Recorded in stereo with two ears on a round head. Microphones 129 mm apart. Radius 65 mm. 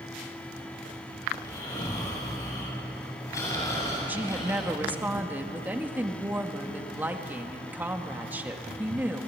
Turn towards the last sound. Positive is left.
turn(degrees=-15)  # may be behind; listen again after turning